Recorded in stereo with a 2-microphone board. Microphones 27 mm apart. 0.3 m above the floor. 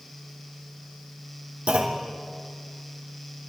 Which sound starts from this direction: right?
A clunk, at 1.7 s.